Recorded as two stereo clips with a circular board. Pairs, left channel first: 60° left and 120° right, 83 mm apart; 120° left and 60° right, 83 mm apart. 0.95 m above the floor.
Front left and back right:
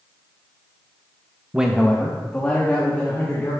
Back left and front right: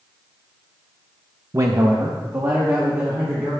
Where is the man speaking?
50° right, 0.6 m; by 3.5 s 5° right, 3 m.